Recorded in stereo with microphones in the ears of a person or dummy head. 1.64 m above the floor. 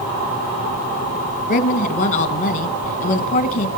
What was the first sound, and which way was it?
A woman speaking, 40° left (ahead or behind).